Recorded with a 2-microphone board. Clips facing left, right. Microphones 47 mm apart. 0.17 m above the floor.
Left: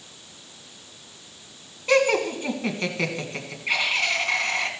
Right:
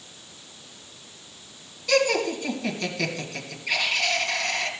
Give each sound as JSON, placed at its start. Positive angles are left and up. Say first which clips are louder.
{"t": 1.9, "sound": "laughter", "louder": "left 2 dB", "side_deg": 35, "distance_m": 1.9}